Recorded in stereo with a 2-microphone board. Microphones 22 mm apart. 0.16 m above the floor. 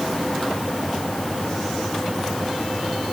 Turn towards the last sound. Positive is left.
No sound to turn to.